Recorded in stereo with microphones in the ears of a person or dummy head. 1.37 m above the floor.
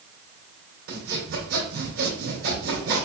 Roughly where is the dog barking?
I don't hear a dog barking.